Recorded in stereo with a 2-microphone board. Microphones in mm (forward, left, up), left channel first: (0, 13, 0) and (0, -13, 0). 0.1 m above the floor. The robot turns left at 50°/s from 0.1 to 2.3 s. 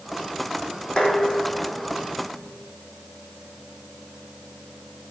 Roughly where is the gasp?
I don't hear a gasp.